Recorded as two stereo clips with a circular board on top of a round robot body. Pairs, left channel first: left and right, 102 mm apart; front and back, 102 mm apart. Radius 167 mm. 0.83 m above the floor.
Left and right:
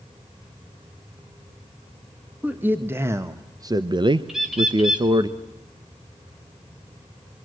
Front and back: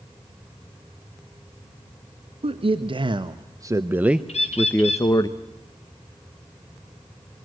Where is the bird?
5° right, 4.5 m.